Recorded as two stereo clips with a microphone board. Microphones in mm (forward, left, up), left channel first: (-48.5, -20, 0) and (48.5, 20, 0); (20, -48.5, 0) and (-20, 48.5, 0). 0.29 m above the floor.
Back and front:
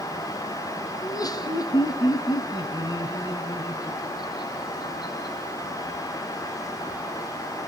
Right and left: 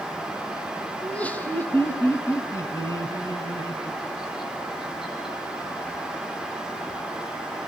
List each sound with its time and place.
1.0 s laughter: 140° right, 1.7 m; by 5.4 s 110° right, 3.5 m